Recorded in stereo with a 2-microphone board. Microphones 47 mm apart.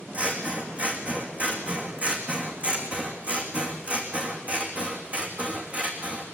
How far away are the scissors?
About 3 m.